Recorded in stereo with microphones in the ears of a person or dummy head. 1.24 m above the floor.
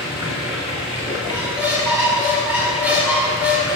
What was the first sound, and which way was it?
Running water, 5° right (ahead or behind).